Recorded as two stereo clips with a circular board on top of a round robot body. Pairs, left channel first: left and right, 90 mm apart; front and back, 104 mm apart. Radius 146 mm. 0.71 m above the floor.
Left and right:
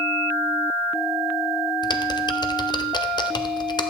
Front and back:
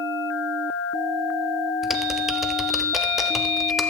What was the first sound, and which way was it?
Typing on a keyboard, 95° left.